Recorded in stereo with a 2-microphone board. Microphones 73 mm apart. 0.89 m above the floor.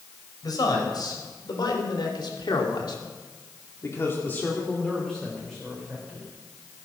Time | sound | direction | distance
0.4 | a man speaking | 60° left (ahead or behind) | 4.5 m